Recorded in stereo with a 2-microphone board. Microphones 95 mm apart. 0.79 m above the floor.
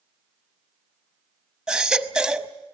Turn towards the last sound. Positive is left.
turn(degrees=-5)  # may be behind; listen again after turning